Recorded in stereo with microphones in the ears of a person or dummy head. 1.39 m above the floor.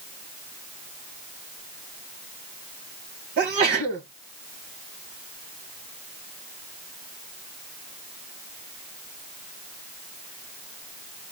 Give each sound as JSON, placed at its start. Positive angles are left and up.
{"t": 3.4, "sound": "a sneeze", "side_deg": -45, "distance_m": 1.8}